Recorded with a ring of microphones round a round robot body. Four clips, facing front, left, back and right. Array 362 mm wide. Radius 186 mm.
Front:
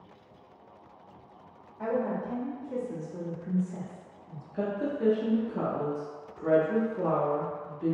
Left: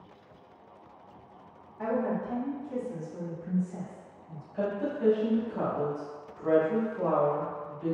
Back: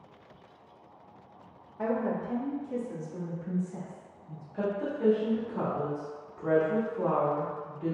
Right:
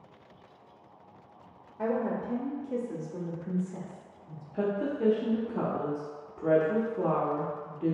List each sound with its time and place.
1.8 s a woman speaking: 150° right, 1.1 m; by 4.4 s 35° right, 1.7 m
4.5 s a woman speaking: 55° right, 1.0 m